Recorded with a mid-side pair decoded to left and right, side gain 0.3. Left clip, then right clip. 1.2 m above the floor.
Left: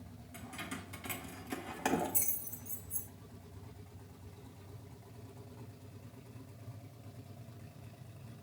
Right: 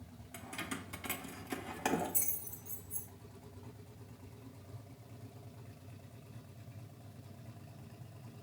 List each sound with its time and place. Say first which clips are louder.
0.3 s keys jangling: right 2 dB; 65° right, 0.9 m; by 3.1 s 25° left, 1.2 m